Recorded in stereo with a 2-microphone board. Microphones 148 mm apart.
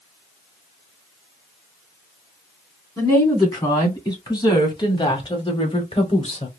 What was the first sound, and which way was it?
A woman speaking, 25° left (ahead or behind).